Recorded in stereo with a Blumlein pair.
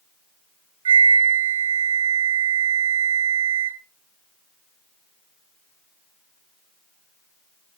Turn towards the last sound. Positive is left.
turn(degrees=-70)